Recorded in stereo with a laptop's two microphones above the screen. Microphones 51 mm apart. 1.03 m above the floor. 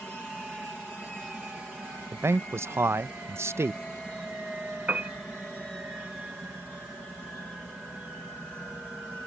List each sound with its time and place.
2.1 s a man speaking: 60° right (ahead or behind)
4.9 s a piano: 35° right (ahead or behind)